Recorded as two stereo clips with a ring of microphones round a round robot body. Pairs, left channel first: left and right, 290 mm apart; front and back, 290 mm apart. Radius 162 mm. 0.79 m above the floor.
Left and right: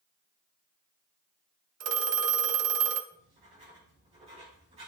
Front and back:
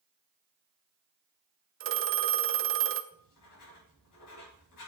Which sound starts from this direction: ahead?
Writing, at 3.1 s.